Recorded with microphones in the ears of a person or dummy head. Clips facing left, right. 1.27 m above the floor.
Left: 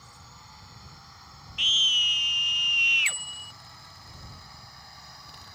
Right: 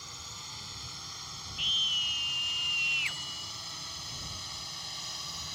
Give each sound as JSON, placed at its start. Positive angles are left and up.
{"t": 0.0, "sound": "a drone", "side_deg": -45}
{"t": 1.6, "sound": "a scream", "side_deg": 80}
{"t": 3.0, "sound": "a bicycle bell", "side_deg": 25}